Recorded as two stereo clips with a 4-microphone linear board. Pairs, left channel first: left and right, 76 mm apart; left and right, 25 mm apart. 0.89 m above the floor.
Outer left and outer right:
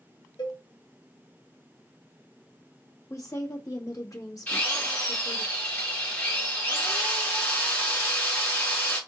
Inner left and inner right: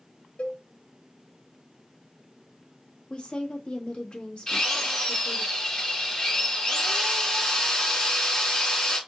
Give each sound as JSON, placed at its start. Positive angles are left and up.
{"t": 0.4, "sound": "a cowbell", "side_deg": 70, "distance_m": 0.9}
{"t": 3.1, "sound": "a woman speaking", "side_deg": 45, "distance_m": 1.5}
{"t": 4.5, "sound": "a drill", "side_deg": 20, "distance_m": 3.0}